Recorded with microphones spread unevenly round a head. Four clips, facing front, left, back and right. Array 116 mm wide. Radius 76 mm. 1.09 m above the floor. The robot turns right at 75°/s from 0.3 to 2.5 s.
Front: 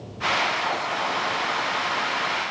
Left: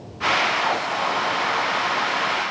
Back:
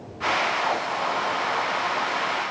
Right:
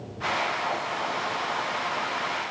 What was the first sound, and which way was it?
Only background noise.